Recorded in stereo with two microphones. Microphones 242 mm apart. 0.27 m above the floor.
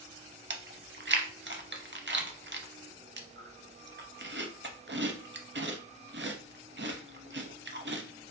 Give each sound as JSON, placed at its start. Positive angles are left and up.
{"t": 0.5, "sound": "chewing", "side_deg": -50, "distance_m": 0.6}